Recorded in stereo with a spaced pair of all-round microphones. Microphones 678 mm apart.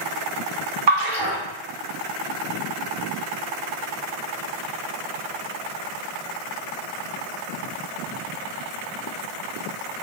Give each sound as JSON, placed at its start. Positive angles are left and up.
{"t": 0.9, "sound": "a splash", "side_deg": -40, "distance_m": 0.9}